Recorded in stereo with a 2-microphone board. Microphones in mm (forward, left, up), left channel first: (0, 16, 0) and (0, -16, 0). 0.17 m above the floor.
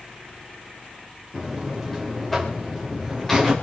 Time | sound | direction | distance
1.3 | a buzzer | 10° left (ahead or behind) | 5.5 m